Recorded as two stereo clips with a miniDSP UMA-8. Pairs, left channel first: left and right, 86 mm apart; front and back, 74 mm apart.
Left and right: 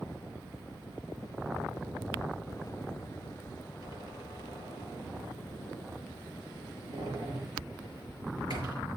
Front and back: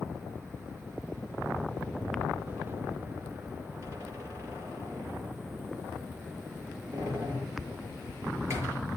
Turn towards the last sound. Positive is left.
turn(degrees=-125)